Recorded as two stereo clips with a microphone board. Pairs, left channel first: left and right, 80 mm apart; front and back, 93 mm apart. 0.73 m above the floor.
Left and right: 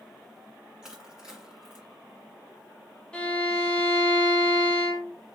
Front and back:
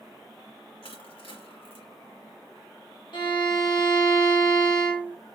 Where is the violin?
15° left, 1.0 m.